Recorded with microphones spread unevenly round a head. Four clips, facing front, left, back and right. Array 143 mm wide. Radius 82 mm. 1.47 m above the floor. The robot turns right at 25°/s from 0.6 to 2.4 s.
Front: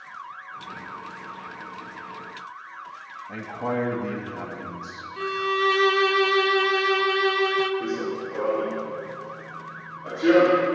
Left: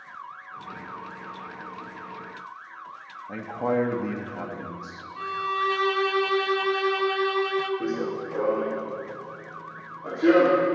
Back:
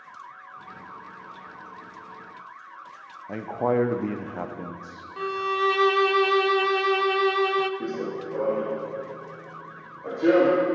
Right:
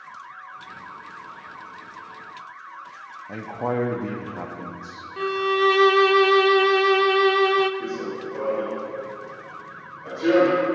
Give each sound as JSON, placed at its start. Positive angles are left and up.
{"t": 3.3, "sound": "a man speaking", "azimuth_deg": -175, "distance_m": 0.8}
{"t": 5.2, "sound": "a violin", "azimuth_deg": -85, "distance_m": 0.6}
{"t": 7.8, "sound": "running footsteps", "azimuth_deg": 135, "distance_m": 2.0}